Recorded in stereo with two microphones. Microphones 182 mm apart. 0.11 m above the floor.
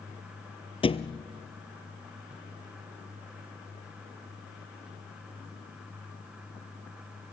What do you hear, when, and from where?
0.8 s a thud: 30° left (ahead or behind), 1.3 m